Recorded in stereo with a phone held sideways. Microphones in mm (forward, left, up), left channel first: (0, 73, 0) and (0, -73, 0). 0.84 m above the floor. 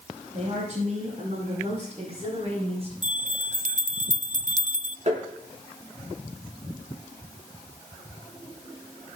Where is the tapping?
55° right (ahead or behind), 6 m.